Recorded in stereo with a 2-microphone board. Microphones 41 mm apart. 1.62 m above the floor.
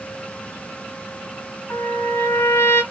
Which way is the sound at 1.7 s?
80° left.